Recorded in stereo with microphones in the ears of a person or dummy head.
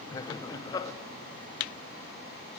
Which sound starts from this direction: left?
Laughter, at 0.1 s.